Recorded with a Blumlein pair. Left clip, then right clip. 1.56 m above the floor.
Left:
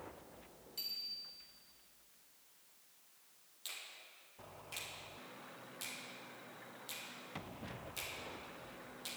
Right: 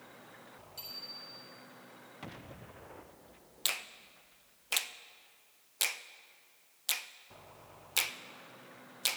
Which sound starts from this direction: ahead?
A bicycle bell, at 0.8 s.